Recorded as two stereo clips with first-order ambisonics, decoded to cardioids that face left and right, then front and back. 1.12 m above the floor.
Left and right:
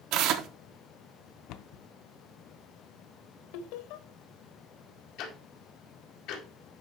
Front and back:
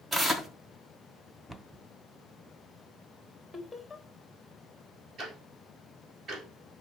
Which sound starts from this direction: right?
Tearing paper, at 0.1 s.